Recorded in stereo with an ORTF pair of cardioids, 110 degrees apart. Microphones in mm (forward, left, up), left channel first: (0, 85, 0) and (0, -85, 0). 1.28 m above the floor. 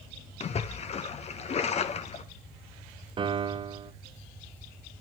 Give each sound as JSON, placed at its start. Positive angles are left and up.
{"t": 0.4, "sound": "a splash", "azimuth_deg": 40, "distance_m": 1.1}
{"t": 3.2, "sound": "a piano", "azimuth_deg": -30, "distance_m": 0.8}